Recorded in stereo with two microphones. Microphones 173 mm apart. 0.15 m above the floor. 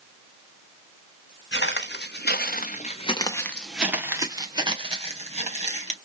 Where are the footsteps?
80° left, 1.9 m; by 6.0 s 40° right (ahead or behind), 3 m.